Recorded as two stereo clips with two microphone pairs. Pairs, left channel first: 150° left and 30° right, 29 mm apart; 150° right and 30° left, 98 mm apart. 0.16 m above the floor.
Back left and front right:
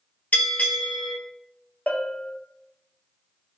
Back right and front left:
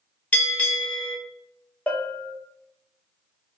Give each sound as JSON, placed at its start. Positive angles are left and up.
{"t": 0.3, "sound": "a bell", "azimuth_deg": 135, "distance_m": 1.6}
{"t": 1.9, "sound": "a bell", "azimuth_deg": 135, "distance_m": 0.5}